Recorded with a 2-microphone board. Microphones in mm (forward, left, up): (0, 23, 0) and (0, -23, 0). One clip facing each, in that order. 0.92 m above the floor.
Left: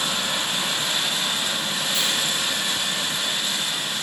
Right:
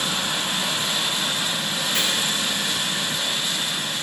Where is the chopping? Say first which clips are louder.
Right 4 dB; 60° right (ahead or behind), 3 m.